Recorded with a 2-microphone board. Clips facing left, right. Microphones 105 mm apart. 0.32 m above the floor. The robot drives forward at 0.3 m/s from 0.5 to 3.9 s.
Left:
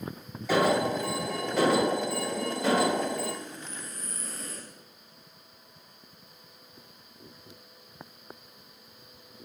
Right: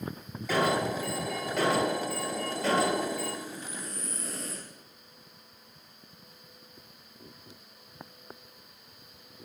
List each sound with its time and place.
0.5 s an alarm: 5° left (ahead or behind), 4 m
3.4 s breathing: 75° right (ahead or behind), 5 m